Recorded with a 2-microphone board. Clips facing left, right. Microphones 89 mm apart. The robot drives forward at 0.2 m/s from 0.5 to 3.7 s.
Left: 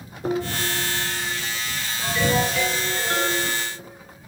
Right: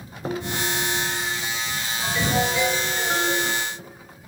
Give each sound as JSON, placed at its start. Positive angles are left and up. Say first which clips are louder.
{"t": 0.2, "sound": "dishes clattering", "louder": "left 2 dB", "side_deg": 40, "distance_m": 6.0}
{"t": 2.0, "sound": "a ringtone", "louder": "left 2 dB", "side_deg": -10, "distance_m": 3.0}